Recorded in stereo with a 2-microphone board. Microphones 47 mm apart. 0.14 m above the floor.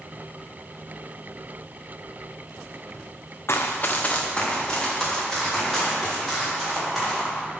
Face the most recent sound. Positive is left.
turn(degrees=5)  # may be behind; listen again after turning